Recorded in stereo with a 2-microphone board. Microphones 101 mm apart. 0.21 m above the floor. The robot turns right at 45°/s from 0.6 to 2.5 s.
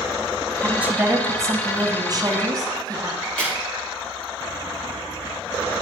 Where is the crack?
10° left (ahead or behind), 4 m.